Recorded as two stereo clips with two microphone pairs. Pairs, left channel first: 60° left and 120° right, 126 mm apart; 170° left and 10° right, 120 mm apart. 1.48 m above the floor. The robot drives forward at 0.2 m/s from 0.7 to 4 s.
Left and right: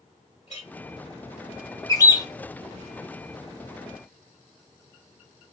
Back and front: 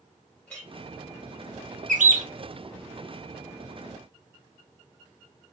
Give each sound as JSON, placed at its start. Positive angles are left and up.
{"t": 0.5, "sound": "a clink", "azimuth_deg": 90, "distance_m": 1.5}
{"t": 1.9, "sound": "a bird", "azimuth_deg": -5, "distance_m": 0.5}